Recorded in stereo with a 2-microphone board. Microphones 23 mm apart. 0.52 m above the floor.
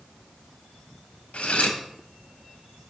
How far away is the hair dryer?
No hair dryer in this recording.